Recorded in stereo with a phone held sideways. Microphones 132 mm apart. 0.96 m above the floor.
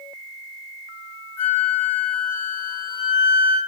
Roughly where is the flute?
Centre.